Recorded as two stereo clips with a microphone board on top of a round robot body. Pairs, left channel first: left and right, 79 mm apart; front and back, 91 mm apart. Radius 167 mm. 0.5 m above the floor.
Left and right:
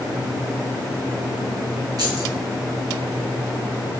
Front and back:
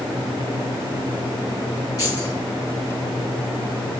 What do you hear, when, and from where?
2.0 s keys jangling: 55° right, 5 m